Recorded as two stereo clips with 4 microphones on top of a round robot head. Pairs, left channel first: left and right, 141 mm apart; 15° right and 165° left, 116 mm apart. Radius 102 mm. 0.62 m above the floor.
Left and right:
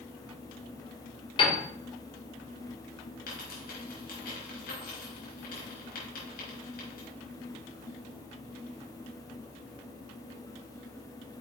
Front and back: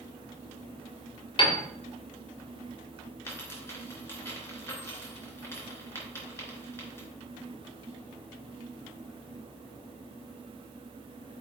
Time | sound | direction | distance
1.4 | a piano | 30° left | 1.8 m
3.3 | a dropped coin | 55° left | 3.5 m